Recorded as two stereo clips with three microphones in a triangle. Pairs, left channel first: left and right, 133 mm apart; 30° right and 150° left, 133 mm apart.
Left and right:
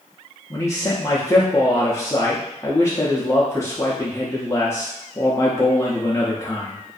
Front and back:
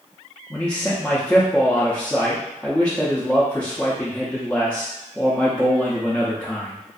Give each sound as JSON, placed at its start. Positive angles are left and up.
{"t": 0.5, "sound": "a man speaking", "azimuth_deg": 40, "distance_m": 0.5}